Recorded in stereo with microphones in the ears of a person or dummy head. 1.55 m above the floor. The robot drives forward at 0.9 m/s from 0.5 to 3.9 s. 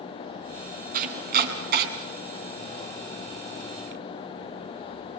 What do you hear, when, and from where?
0.9 s chopping: 45° right (ahead or behind), 3 m; by 1.9 s 55° right (ahead or behind), 2.5 m